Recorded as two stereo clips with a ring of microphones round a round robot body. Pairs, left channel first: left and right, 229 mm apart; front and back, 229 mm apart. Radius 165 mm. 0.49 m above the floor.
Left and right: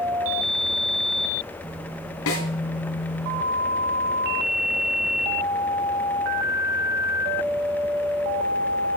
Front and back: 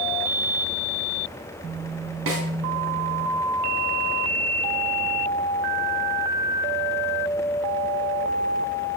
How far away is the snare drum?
About 3 m.